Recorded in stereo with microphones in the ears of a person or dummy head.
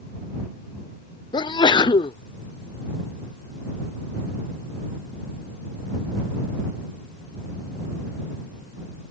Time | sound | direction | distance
1.3 | a sneeze | 25° left (ahead or behind) | ?